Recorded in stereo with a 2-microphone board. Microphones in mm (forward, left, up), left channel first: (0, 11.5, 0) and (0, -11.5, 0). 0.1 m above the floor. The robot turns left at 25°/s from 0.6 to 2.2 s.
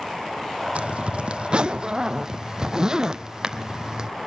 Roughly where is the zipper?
Right.